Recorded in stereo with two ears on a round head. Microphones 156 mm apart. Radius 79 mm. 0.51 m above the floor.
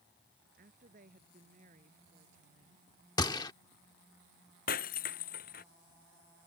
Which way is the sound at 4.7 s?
50° left (ahead or behind).